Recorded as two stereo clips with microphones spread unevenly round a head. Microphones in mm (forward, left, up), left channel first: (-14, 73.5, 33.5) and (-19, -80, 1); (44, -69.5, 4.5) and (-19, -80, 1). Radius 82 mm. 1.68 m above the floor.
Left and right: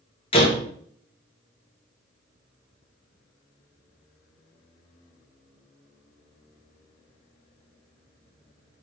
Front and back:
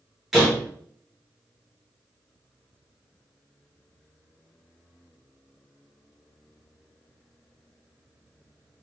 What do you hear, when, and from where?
0.3 s a door slam: 95° left, 1.1 m